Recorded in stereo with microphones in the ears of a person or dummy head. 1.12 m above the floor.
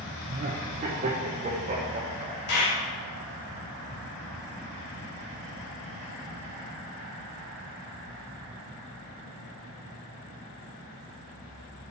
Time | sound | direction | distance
0.2 | laughter | 35° right (ahead or behind) | 0.9 m
2.5 | a clap | 75° left (ahead or behind) | 2.5 m